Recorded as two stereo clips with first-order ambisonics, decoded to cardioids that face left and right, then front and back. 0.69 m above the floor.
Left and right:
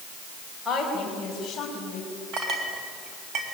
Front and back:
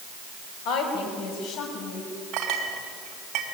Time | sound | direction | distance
0.7 | a woman speaking | 5° right | 4.5 m
2.3 | a clink | 135° right | 3 m